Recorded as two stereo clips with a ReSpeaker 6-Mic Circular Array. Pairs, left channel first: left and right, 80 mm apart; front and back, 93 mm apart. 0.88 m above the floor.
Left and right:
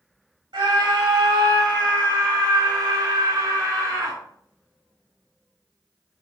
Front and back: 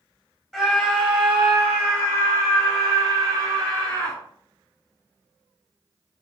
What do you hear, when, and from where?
0.5 s a scream: 100° right, 2.5 m; by 4.2 s 140° right, 3.5 m